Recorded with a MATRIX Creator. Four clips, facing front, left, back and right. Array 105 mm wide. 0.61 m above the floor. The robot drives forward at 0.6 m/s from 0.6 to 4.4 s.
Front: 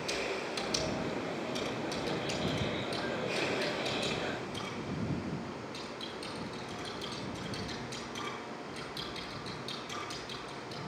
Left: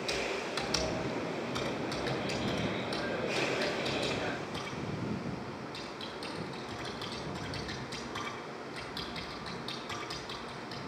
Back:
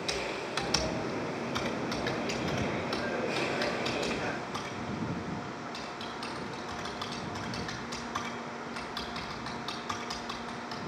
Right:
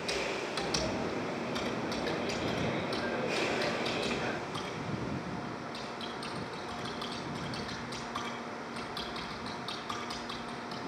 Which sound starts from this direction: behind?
Typing on a keyboard, at 0.1 s.